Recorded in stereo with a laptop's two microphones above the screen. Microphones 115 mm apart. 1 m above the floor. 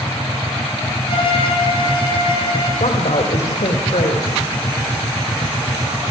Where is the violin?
45° left (ahead or behind), 5.5 m.